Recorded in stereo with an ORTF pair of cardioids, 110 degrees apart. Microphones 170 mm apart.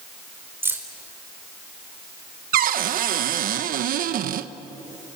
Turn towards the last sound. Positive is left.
turn(degrees=-55)